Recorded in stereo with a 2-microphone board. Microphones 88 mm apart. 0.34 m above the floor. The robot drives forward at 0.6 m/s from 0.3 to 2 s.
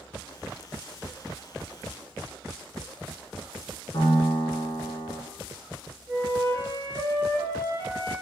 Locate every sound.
3.9 s a piano: 50° left (ahead or behind), 0.8 m
6.1 s a flute: 40° right (ahead or behind), 1.9 m